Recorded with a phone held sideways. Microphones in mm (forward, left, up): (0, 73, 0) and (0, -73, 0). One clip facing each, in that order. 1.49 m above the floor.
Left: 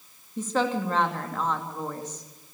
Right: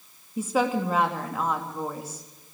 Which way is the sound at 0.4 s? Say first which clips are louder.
Right 2 dB; 10° right (ahead or behind).